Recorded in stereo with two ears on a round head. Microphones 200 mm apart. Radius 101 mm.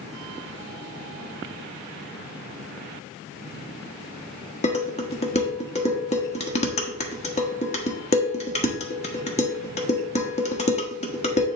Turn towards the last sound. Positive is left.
turn(degrees=30)  # may be behind; listen again after turning